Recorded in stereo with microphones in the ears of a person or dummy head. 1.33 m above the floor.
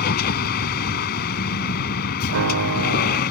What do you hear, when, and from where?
0.0 s a vehicle: 55° left (ahead or behind)
2.3 s a piano: 75° right (ahead or behind)